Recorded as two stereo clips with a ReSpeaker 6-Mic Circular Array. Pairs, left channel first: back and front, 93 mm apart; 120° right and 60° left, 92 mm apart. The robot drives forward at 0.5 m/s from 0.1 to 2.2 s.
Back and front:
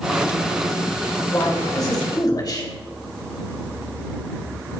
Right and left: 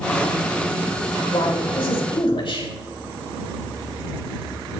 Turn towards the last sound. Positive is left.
turn(degrees=-140)